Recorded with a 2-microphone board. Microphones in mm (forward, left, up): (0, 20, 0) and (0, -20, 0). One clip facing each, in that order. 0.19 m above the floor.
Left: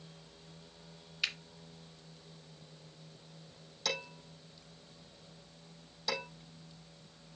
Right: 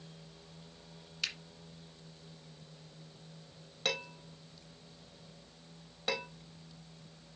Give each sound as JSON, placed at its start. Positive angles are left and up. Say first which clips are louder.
{"t": 1.2, "sound": "a finger snap", "louder": "left 3 dB", "side_deg": 15, "distance_m": 1.7}
{"t": 3.9, "sound": "dishes clattering", "louder": "right 2 dB", "side_deg": -35, "distance_m": 5.0}